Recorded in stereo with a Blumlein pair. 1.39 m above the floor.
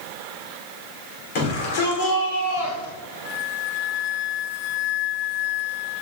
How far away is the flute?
About 0.6 m.